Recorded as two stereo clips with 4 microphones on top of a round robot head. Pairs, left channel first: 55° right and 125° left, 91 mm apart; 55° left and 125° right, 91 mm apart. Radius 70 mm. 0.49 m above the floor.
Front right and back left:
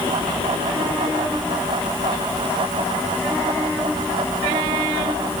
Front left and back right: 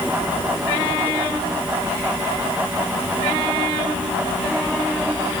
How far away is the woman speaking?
No woman speaking in this recording.